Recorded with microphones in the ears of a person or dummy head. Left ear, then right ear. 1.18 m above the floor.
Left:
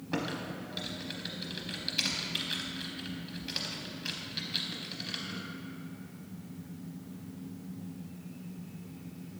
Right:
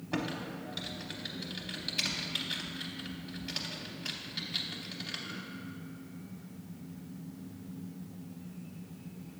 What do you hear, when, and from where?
0.1 s typing on a keyboard: centre (ahead or behind), 0.6 m